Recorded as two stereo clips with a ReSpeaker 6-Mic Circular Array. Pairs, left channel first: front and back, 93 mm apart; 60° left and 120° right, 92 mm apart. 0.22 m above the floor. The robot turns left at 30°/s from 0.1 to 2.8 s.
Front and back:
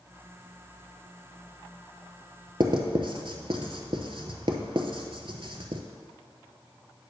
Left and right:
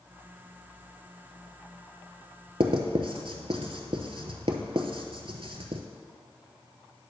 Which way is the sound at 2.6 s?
140° right.